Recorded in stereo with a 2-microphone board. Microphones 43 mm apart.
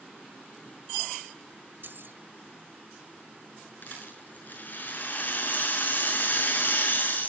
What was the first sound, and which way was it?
Keys jangling, 60° right (ahead or behind).